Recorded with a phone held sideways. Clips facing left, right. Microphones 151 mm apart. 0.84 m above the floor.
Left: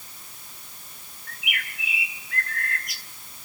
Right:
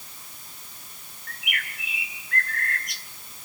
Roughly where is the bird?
Centre.